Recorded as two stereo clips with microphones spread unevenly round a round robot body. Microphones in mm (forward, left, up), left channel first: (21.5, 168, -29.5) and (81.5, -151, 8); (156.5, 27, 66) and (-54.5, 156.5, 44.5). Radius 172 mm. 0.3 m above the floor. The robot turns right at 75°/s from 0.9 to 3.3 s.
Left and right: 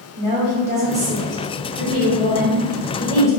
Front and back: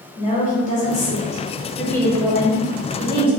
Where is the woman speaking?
25° right, 1.1 m; by 3.3 s 155° left, 1.1 m.